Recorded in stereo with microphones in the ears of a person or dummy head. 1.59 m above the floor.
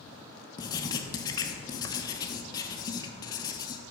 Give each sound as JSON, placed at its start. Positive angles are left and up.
{"t": 0.6, "sound": "writing", "side_deg": 20, "distance_m": 1.0}